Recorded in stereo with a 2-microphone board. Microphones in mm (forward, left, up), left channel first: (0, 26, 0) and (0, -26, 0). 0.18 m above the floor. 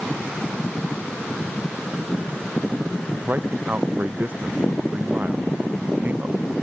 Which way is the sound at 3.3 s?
35° right (ahead or behind).